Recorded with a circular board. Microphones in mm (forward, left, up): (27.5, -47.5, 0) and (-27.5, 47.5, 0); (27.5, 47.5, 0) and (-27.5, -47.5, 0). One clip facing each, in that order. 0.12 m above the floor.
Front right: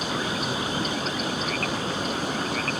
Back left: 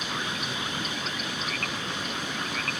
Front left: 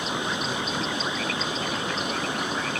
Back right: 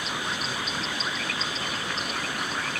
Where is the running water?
5° right.